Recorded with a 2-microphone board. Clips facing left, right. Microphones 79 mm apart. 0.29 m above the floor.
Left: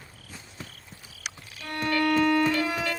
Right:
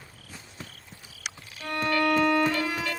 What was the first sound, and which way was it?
A violin, 45° right (ahead or behind).